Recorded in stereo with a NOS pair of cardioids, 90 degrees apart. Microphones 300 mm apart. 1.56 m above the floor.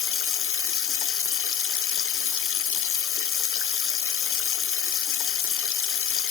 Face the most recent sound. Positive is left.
turn(degrees=45)